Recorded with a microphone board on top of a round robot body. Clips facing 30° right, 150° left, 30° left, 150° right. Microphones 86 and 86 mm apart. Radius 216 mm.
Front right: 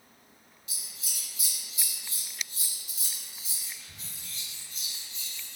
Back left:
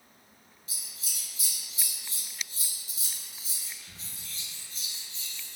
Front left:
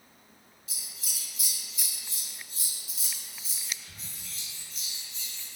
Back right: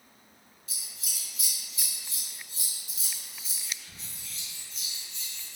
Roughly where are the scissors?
Behind left.